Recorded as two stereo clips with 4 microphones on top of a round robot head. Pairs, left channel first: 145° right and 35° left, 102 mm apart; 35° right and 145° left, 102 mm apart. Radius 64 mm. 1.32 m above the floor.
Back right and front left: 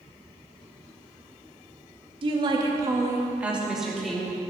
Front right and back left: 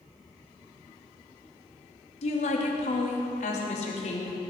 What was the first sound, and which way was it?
A woman speaking, 10° right.